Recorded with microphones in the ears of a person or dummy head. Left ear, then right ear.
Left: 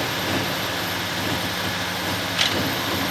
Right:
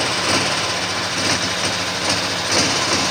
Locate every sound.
0.0 s a motorcycle: 55° right (ahead or behind); by 3.1 s 70° right (ahead or behind)